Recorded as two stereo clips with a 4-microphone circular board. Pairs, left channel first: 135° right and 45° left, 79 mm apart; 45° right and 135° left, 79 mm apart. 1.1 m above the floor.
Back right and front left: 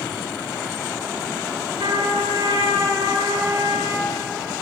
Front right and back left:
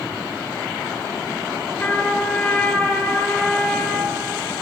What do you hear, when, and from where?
1.8 s a trumpet: 25° left, 4 m